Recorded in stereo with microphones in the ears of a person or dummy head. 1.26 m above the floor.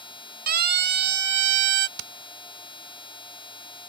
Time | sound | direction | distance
0.5 | a siren | 45° right (ahead or behind) | ?
2.0 | hammering | 70° right (ahead or behind) | ?